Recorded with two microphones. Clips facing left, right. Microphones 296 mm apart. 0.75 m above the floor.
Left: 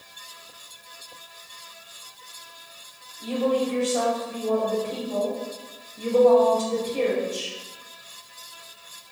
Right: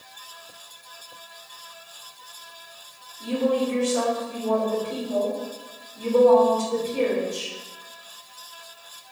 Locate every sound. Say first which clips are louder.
3.2 s a woman speaking: right 1 dB; 15° right (ahead or behind), 1.9 m